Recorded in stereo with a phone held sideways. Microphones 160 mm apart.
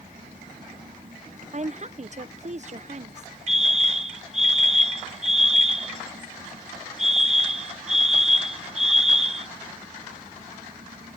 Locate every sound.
0.0 s an engine running: 60° right (ahead or behind)
1.5 s a woman speaking: 50° right (ahead or behind)
3.5 s a fire alarm: 45° right (ahead or behind)